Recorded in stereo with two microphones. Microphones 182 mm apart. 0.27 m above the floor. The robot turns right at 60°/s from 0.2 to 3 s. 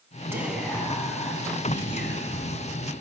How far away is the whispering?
About 2.5 m.